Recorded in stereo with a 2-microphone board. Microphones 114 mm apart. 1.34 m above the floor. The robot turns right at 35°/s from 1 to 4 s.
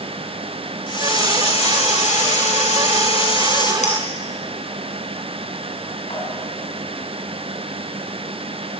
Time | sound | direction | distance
0.9 | a hiss | 45° left | 3 m
3.8 | a clink | 80° left | 8 m